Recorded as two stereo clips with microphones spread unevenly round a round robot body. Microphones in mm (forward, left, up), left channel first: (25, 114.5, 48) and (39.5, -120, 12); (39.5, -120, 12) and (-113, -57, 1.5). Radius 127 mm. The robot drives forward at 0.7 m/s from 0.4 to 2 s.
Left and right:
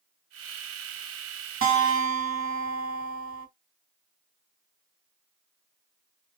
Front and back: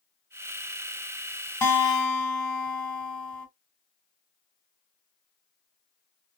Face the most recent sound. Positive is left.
turn(degrees=-110)